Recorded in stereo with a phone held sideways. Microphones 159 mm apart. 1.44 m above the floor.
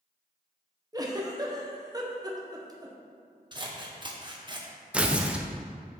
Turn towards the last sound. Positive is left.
turn(degrees=-5)  # may be behind; listen again after turning